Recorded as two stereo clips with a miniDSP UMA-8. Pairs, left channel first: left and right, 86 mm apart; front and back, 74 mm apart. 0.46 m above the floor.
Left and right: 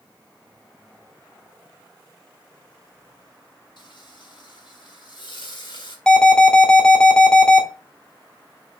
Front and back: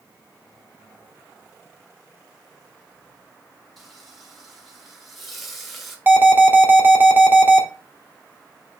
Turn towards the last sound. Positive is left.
turn(degrees=165)